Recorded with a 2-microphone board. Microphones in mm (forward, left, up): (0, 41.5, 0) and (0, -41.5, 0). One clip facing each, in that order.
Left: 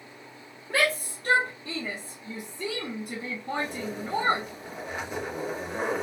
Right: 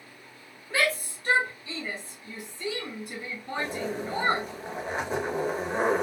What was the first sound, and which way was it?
A shout, 55° left (ahead or behind).